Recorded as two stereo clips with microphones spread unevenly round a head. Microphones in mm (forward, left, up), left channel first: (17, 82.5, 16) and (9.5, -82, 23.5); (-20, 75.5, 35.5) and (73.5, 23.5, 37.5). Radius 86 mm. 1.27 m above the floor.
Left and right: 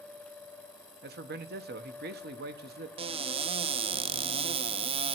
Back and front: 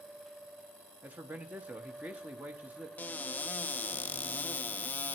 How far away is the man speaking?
About 1.0 m.